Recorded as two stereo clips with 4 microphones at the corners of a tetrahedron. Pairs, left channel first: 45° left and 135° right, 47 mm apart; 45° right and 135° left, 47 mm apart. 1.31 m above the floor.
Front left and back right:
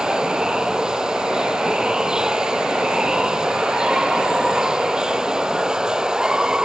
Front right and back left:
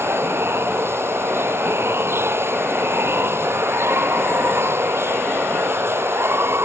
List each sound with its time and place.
0.0 s running water: 150° left